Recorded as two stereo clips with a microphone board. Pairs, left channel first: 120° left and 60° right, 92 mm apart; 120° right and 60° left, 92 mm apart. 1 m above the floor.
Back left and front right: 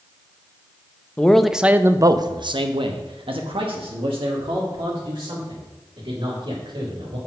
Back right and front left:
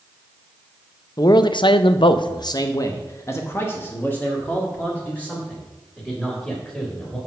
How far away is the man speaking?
About 0.6 m.